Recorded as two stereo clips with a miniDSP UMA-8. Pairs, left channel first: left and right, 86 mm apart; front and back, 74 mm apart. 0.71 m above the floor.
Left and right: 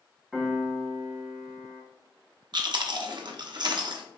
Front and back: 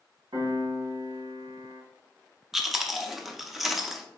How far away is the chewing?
About 0.7 m.